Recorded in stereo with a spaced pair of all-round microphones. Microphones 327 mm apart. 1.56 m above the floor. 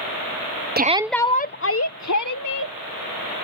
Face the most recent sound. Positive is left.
turn(degrees=65)  # may be behind; listen again after turning